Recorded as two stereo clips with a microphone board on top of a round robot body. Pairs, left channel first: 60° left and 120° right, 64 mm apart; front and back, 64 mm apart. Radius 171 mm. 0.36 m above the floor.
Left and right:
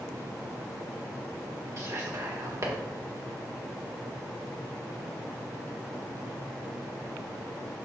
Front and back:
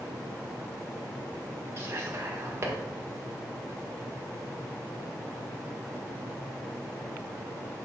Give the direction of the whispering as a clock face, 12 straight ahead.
5 o'clock.